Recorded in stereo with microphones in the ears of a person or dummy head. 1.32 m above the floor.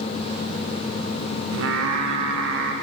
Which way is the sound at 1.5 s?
70° right (ahead or behind).